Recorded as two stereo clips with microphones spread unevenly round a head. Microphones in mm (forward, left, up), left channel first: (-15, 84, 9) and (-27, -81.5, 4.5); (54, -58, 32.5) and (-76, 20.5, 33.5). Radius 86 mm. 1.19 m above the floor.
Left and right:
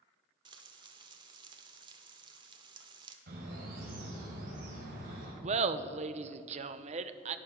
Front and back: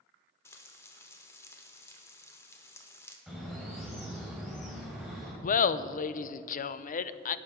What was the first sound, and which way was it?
Frying, 85° right.